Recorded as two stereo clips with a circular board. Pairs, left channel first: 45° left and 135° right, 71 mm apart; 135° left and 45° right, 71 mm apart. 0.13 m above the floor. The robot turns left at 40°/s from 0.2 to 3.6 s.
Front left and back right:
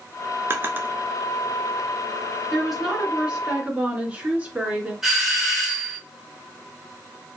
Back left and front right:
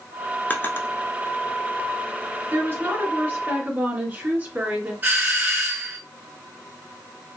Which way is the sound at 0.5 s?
170° right.